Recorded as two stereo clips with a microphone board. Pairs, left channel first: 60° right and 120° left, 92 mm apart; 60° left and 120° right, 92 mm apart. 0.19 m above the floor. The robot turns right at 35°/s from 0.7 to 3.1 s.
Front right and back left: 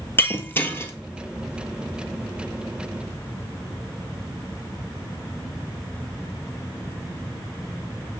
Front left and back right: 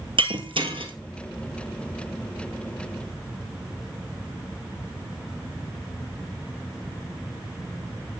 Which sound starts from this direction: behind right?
Breaking glass, at 0.2 s.